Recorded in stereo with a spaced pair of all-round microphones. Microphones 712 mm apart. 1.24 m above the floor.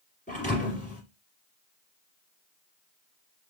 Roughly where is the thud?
Centre.